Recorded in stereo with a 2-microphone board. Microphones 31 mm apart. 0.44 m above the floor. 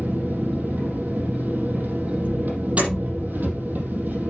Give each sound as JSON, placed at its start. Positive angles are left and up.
{"t": 0.0, "sound": "an engine running", "side_deg": -75, "distance_m": 4.5}
{"t": 2.8, "sound": "a door slam", "side_deg": -45, "distance_m": 9.0}